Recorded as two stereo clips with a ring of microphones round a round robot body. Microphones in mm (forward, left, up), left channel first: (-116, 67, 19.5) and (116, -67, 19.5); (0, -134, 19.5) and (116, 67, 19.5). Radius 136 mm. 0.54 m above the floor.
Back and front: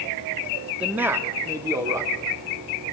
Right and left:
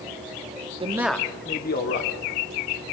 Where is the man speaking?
50° left, 1.0 m; by 2.4 s 105° right, 1.8 m.